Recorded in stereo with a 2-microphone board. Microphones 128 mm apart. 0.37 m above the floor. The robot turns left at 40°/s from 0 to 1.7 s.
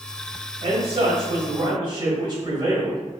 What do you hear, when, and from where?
0.6 s a man speaking: 85° right, 1.8 m; by 3.0 s 130° right, 1.8 m